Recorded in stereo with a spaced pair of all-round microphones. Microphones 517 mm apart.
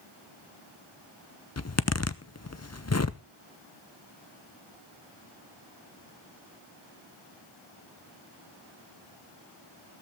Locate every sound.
1.6 s a zipper: 30° left (ahead or behind), 0.7 m